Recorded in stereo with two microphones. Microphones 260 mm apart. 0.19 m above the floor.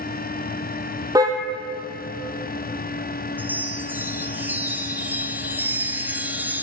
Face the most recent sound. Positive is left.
turn(degrees=-5)  # may be behind; listen again after turning